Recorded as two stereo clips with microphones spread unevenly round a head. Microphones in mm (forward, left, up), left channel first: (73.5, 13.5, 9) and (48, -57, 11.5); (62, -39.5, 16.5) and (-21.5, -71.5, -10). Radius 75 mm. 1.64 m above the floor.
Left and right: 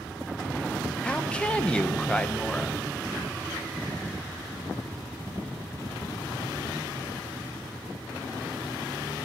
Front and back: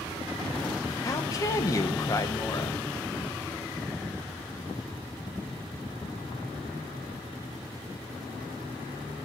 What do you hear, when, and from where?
1.0 s a woman speaking: 5° right, 1.0 m